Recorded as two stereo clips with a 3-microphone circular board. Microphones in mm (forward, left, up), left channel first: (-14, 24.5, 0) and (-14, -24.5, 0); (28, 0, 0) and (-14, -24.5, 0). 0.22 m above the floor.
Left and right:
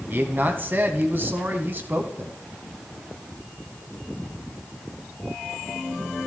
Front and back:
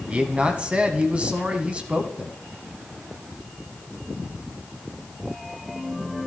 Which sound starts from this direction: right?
A man speaking, at 0.1 s.